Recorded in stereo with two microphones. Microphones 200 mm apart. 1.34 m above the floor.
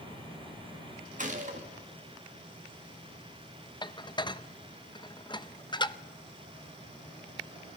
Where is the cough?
I don't hear a cough.